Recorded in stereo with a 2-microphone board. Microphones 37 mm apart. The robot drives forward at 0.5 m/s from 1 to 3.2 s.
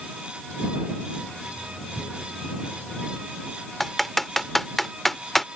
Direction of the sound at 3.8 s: 5° left (ahead or behind).